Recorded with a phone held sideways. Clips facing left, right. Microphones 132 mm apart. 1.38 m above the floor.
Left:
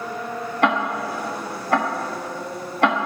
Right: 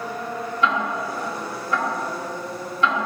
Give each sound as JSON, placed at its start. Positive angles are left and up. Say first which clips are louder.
{"t": 0.6, "sound": "ticking", "louder": "left 3 dB", "side_deg": 65, "distance_m": 0.7}